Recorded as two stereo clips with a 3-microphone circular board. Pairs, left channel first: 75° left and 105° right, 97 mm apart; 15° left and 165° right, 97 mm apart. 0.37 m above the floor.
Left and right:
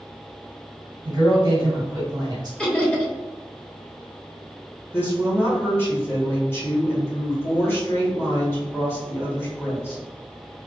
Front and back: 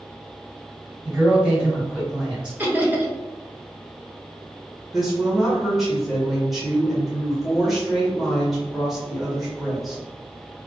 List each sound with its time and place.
1.1 s a man speaking: 95° right, 1.7 m
2.6 s laughter: 145° left, 0.9 m
4.9 s a woman speaking: 110° left, 1.2 m